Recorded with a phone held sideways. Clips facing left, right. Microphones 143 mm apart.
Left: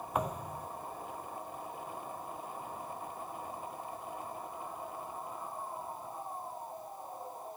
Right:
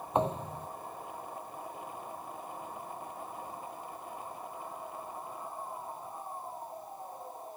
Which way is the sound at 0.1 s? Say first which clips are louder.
Right 5 dB; 25° right (ahead or behind).